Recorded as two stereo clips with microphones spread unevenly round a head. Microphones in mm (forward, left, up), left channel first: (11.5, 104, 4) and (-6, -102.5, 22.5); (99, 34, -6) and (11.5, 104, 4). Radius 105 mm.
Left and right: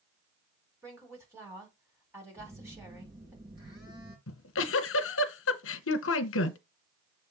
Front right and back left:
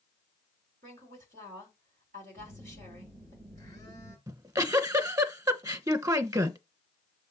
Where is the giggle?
80° left, 1.3 m.